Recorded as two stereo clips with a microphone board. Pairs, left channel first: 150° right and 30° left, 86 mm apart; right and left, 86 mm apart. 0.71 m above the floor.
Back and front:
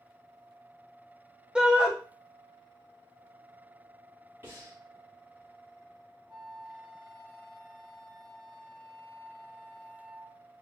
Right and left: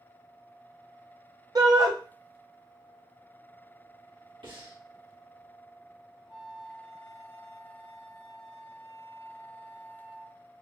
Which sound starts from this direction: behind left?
A flute, at 6.3 s.